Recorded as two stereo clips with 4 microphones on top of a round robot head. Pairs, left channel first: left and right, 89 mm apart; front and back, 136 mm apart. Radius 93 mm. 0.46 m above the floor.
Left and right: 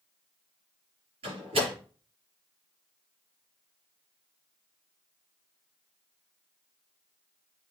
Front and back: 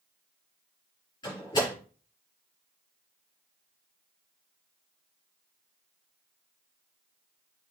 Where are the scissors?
I don't hear scissors.